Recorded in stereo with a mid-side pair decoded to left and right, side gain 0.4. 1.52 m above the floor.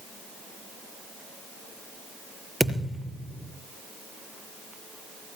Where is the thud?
15° right, 5.5 m.